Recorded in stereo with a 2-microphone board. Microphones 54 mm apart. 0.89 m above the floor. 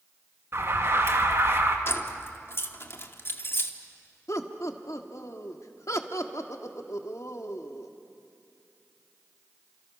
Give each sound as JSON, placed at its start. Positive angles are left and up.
{"t": 0.5, "sound": "an alarm", "side_deg": -50, "distance_m": 1.9}
{"t": 1.9, "sound": "keys jangling", "side_deg": 50, "distance_m": 1.4}
{"t": 4.3, "sound": "laughter", "side_deg": 65, "distance_m": 1.7}